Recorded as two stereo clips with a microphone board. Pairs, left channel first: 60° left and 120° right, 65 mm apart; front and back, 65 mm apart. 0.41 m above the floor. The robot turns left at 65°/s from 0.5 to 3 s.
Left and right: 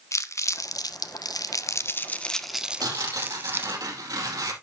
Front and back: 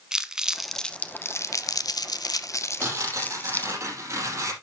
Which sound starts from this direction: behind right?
Tearing paper, at 2.8 s.